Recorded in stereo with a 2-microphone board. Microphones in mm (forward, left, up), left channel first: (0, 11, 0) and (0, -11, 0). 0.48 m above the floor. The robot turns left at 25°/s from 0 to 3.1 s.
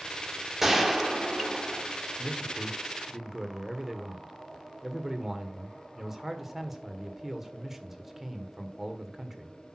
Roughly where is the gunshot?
Ahead.